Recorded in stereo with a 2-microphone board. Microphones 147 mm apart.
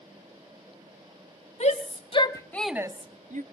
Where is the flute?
I don't hear a flute.